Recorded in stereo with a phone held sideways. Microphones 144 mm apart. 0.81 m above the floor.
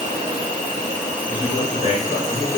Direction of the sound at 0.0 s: 55° right (ahead or behind).